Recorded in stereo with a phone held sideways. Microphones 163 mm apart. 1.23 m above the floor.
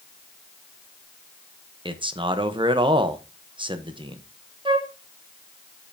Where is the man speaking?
30° right (ahead or behind), 0.9 m.